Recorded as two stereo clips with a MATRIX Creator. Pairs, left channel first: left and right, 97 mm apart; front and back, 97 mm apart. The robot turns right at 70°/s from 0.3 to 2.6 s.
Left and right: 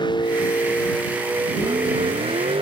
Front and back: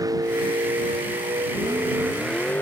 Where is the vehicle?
130° left; by 2.6 s 70° right.